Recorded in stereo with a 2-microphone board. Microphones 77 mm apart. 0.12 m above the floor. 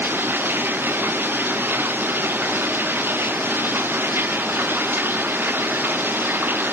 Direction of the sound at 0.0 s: 30° right (ahead or behind).